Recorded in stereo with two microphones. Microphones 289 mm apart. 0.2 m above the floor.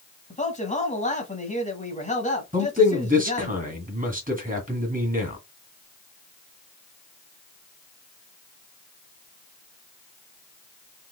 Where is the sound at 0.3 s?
25° left (ahead or behind), 1.1 m.